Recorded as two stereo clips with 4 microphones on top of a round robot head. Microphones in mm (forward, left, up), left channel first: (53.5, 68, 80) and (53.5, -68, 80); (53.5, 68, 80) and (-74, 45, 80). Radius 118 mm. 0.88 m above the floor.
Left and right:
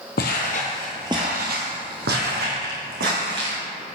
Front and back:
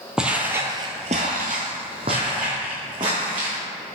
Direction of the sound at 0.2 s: 105° left.